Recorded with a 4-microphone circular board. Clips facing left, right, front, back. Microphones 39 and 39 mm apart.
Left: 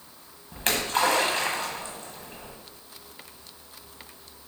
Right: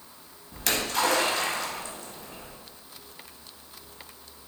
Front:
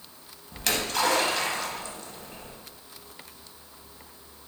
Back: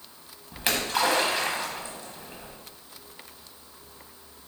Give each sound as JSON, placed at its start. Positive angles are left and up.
{"t": 0.5, "sound": "a splash", "azimuth_deg": 120, "distance_m": 1.0}